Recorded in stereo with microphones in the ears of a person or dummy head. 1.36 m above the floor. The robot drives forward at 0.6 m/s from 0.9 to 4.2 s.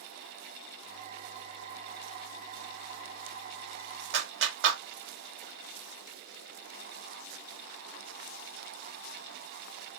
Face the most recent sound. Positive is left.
turn(degrees=-75)  # may be behind; listen again after turning